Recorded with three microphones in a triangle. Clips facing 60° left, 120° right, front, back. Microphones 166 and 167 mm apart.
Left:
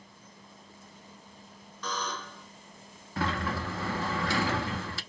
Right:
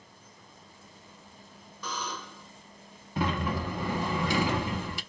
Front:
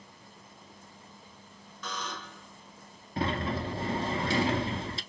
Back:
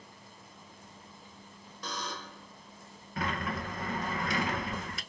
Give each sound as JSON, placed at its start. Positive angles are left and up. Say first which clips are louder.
{"t": 1.8, "sound": "a buzzer", "louder": "left 2 dB, even", "azimuth_deg": 165, "distance_m": 1.2}
{"t": 3.2, "sound": "a sliding door", "louder": "right 2 dB, front 4 dB", "azimuth_deg": -50, "distance_m": 0.6}